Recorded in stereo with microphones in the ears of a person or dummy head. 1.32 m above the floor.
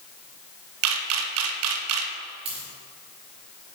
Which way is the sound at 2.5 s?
25° right (ahead or behind).